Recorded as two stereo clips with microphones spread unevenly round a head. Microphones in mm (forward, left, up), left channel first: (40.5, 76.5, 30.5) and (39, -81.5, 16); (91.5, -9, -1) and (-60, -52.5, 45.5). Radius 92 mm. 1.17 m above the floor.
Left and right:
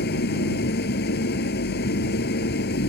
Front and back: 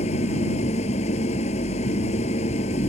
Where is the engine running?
75° left.